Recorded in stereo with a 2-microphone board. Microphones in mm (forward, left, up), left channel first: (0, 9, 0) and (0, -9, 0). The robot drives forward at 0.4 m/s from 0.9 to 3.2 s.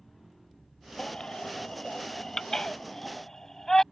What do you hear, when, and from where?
1.0 s a baby crying: 45° left (ahead or behind); by 3.8 s 30° left (ahead or behind)